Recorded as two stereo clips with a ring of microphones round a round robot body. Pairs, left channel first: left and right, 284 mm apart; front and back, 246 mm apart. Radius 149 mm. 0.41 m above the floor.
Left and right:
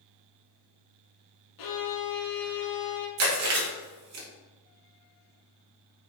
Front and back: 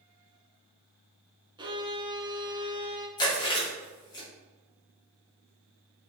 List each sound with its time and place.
1.6 s a violin: 105° left, 0.8 m
3.2 s chewing: 70° right, 1.2 m